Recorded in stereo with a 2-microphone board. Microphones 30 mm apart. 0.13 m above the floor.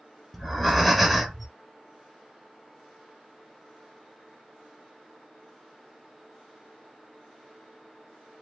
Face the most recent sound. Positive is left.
turn(degrees=0)  # may be behind; listen again after turning